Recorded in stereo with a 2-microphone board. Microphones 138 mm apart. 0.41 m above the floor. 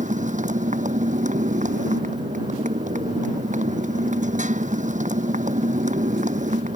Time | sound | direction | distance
0.0 | a motorcycle | 60° right (ahead or behind) | ?